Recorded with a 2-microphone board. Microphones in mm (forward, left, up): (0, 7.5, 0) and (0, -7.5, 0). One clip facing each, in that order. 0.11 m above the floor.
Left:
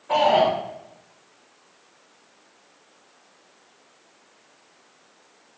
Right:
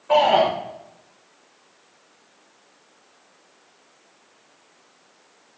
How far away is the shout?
About 8.5 m.